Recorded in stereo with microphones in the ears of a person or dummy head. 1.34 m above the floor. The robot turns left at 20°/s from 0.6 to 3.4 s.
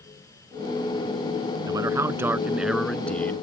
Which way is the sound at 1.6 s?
155° right.